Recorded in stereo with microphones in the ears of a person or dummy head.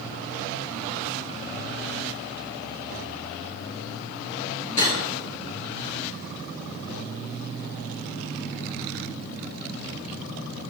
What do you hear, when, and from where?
4.8 s cutlery clinking: 40° left (ahead or behind), 4.5 m